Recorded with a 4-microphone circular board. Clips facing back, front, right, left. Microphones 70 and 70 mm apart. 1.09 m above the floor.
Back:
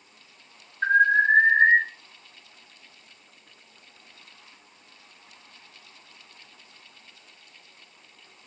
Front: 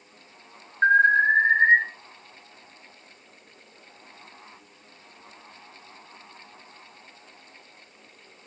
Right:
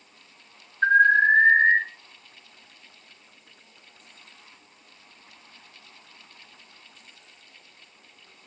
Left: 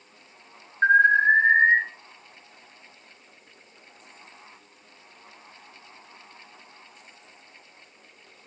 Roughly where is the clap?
No clap in this recording.